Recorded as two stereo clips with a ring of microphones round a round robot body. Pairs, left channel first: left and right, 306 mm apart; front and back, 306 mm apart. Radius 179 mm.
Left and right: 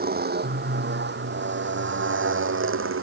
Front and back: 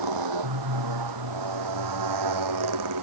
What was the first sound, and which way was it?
A motorcycle, 150° right.